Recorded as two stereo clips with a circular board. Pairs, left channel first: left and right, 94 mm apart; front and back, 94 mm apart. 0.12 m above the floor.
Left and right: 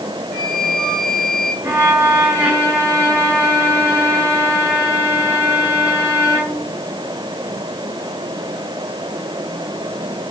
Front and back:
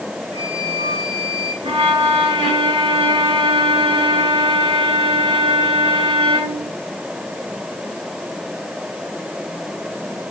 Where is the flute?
175° left, 7 m.